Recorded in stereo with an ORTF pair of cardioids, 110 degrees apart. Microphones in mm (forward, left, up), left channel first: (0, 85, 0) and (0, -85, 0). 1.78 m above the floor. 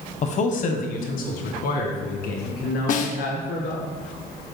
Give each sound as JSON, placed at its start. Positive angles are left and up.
{"t": 0.2, "sound": "a man speaking", "azimuth_deg": 45, "distance_m": 1.1}
{"t": 2.9, "sound": "a snare drum", "azimuth_deg": 55, "distance_m": 0.8}